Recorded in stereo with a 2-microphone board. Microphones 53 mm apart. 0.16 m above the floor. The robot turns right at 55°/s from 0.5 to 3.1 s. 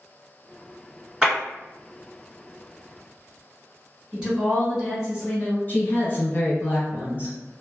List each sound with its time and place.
1.2 s a clap: 15° right (ahead or behind), 1.9 m; by 1.4 s 20° right (ahead or behind), 1.9 m
4.1 s a woman speaking: 15° right (ahead or behind), 1.7 m
5.7 s a woman speaking: 40° left (ahead or behind), 1.4 m